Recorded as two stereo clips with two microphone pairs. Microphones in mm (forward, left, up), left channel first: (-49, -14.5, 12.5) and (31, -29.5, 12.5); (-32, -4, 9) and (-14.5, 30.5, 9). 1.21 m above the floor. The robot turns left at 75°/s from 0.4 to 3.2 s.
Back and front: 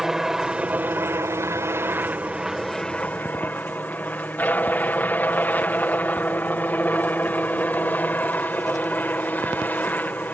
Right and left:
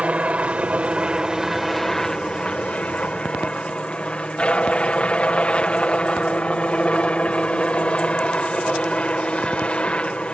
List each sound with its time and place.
0.0 s a helicopter: 70° left; by 10.3 s 140° right